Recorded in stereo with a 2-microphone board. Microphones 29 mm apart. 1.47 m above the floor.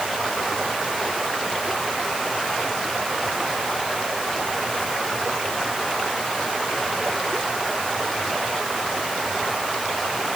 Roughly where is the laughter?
I don't hear laughter.